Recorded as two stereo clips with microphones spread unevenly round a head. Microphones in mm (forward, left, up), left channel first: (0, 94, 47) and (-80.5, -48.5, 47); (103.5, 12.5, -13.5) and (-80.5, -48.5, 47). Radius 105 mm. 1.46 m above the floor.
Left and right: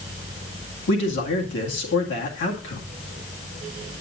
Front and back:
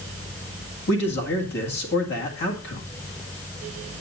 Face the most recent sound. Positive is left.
turn(degrees=60)